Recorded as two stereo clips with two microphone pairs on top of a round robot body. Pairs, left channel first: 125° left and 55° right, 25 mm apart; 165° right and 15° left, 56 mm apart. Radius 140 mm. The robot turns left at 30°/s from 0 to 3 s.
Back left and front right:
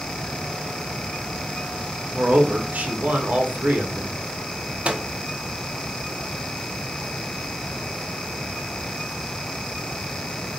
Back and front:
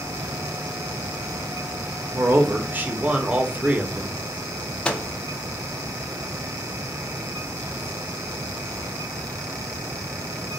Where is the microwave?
90° right, 0.6 m.